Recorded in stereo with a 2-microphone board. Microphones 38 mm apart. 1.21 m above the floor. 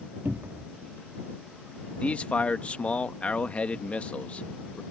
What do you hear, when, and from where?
0.2 s a cupboard door: 70° right (ahead or behind)
2.0 s a man speaking: 35° left (ahead or behind)